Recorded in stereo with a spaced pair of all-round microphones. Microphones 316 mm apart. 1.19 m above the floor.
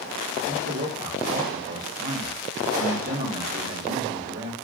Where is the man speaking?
45° right (ahead or behind), 2 m.